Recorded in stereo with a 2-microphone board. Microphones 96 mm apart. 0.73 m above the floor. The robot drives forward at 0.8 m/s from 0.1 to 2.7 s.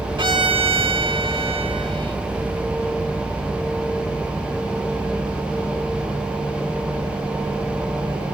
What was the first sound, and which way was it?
A violin, 55° right (ahead or behind).